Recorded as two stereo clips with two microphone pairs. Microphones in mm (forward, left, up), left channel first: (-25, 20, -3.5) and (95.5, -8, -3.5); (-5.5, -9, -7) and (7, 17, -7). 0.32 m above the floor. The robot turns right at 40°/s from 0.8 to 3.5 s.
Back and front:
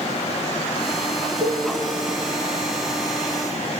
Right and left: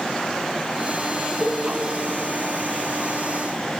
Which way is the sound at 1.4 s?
30° left.